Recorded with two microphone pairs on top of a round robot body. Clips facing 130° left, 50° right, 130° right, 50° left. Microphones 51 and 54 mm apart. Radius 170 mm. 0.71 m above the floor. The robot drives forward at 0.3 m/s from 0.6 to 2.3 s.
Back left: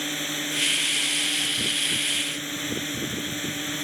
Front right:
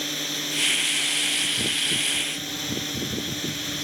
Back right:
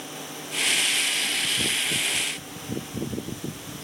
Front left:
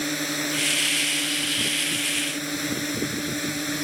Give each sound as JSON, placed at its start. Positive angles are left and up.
{"t": 0.0, "sound": "a drone", "azimuth_deg": 55}